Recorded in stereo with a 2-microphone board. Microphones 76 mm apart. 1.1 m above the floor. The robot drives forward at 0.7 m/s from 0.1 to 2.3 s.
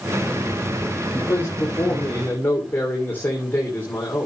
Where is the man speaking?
35° left (ahead or behind), 2 m; by 4.3 s 25° left (ahead or behind), 3 m.